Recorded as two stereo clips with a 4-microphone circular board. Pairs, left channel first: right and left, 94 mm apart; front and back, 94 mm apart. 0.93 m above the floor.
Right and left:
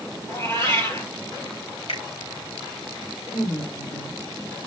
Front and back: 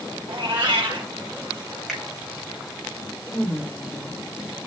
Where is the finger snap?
85° right, 4 m.